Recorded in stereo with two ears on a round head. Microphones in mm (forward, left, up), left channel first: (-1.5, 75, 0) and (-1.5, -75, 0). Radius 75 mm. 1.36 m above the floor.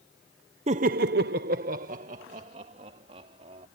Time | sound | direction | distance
0.7 | laughter | 40° right (ahead or behind) | ?